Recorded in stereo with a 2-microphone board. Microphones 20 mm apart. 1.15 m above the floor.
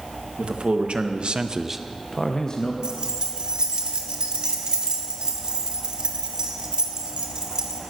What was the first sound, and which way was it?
A man speaking, 65° right (ahead or behind).